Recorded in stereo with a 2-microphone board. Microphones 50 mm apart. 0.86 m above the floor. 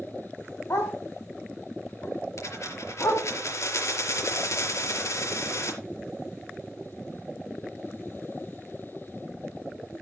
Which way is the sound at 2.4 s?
85° left.